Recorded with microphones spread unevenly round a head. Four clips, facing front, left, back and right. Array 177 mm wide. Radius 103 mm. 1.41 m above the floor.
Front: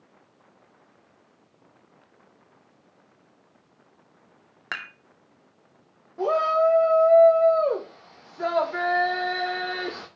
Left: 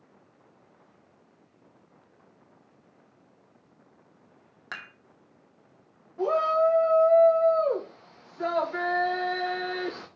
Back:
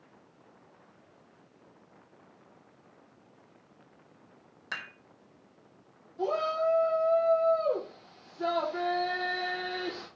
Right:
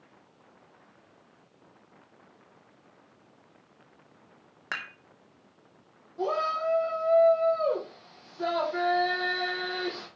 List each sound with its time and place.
4.7 s dishes clattering: 25° right, 2.0 m
6.2 s a shout: straight ahead, 1.6 m